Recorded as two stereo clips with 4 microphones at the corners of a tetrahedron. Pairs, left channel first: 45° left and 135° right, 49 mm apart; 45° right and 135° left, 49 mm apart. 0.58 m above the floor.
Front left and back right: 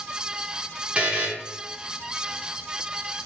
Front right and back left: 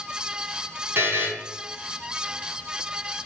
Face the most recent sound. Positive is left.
turn(degrees=160)